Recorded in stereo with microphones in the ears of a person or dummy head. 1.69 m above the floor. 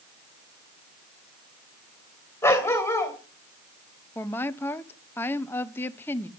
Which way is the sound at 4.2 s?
10° left (ahead or behind).